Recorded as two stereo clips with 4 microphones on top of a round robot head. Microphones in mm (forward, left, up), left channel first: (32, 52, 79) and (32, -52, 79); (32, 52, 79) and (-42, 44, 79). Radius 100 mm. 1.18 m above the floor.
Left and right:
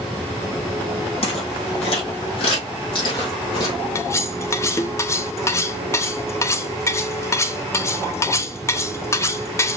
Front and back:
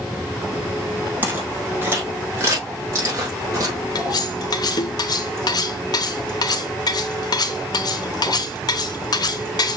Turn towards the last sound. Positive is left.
turn(degrees=30)